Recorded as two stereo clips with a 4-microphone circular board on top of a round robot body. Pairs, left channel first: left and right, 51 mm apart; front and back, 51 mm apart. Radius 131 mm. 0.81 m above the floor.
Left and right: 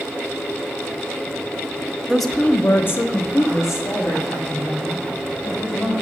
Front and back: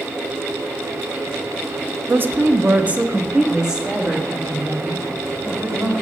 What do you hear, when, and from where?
2.1 s a woman speaking: 170° right, 0.7 m; by 5.9 s 100° left, 4 m